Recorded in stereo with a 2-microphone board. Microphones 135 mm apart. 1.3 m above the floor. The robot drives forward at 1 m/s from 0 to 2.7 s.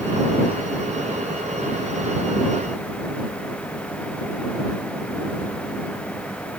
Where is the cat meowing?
I don't hear a cat meowing.